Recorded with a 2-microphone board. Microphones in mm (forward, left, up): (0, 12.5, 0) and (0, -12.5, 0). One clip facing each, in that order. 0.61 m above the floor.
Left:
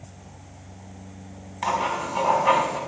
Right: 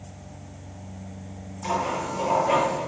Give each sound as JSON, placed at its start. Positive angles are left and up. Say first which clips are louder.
{"t": 1.6, "sound": "writing", "louder": "left 2 dB", "side_deg": 70, "distance_m": 4.5}